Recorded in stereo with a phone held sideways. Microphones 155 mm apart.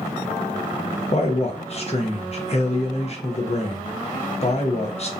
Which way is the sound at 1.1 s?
45° left (ahead or behind).